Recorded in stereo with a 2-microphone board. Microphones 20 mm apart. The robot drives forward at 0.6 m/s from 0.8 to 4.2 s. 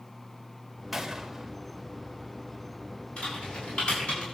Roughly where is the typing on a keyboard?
Left.